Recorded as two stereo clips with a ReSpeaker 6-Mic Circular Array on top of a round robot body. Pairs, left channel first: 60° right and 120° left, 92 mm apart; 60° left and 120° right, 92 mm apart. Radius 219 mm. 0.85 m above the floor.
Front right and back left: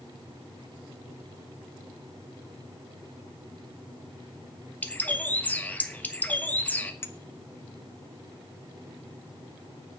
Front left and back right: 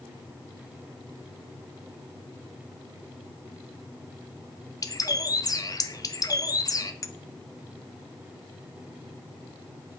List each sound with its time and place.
4.8 s a bird: 10° left, 1.6 m
7.0 s a clink: 5° left, 1.0 m